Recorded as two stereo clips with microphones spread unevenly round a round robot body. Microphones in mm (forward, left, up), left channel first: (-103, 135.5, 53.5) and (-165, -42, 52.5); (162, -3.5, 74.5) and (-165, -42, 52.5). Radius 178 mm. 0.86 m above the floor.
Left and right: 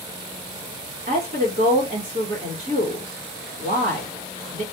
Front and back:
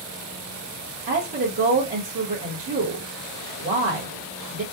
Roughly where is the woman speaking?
Behind right.